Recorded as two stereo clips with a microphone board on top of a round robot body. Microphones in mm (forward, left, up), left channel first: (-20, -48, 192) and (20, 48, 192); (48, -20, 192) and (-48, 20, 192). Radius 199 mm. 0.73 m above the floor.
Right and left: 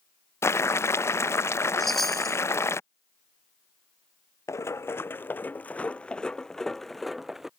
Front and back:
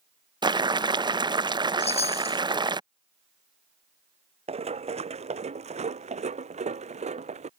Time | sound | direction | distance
0.4 | boiling | 170° right | ?
1.8 | a chime | 25° right | ?
4.5 | running footsteps | 175° right | ?